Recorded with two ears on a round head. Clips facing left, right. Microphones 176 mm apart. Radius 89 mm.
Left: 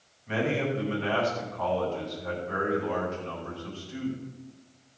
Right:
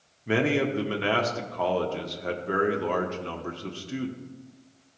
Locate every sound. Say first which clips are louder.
0.3 s a man speaking: right 4 dB; 70° right (ahead or behind), 1.6 m